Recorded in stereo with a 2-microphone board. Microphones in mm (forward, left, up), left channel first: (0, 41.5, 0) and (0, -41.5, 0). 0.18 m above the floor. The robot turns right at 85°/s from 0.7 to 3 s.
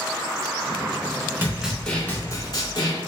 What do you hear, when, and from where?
1.4 s a snare drum: 30° right, 0.7 m; by 3.0 s 105° left, 0.7 m